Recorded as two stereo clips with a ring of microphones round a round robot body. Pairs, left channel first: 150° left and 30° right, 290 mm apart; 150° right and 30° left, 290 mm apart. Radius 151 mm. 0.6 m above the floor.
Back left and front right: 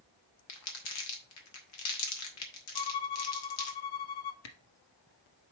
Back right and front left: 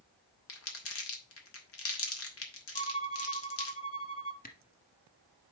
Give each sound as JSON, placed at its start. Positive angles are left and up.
{"t": 0.5, "sound": "crumpling", "azimuth_deg": 175, "distance_m": 1.9}
{"t": 2.8, "sound": "a violin", "azimuth_deg": 140, "distance_m": 0.5}
{"t": 4.4, "sound": "a camera shutter", "azimuth_deg": 145, "distance_m": 1.1}